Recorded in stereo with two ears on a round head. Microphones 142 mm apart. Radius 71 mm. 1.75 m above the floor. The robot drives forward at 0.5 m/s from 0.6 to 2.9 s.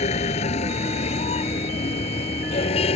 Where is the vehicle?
45° left (ahead or behind); by 3.0 s 40° left (ahead or behind).